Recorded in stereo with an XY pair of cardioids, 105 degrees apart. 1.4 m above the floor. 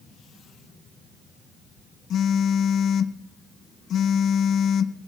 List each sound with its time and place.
2.1 s a phone buzzing: 60° left, 0.8 m